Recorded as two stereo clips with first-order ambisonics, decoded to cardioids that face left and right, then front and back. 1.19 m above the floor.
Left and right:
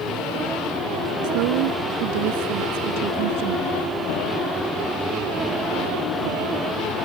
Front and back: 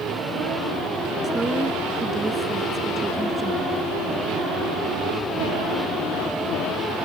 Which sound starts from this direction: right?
A woman speaking, at 1.2 s.